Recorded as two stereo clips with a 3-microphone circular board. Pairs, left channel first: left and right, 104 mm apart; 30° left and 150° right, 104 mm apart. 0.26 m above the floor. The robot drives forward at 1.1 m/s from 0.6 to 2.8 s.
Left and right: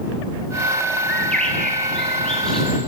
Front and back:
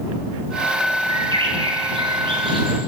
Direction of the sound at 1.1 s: 170° left.